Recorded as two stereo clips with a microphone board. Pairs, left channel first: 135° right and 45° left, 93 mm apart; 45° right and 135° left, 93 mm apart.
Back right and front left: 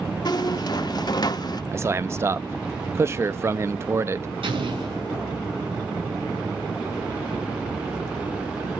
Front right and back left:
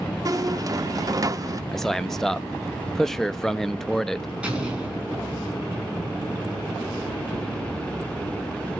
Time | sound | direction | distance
0.2 | a squeak | 175° right | 0.7 m
1.7 | a man speaking | 35° left | 0.6 m
4.4 | an explosion | 55° left | 4.5 m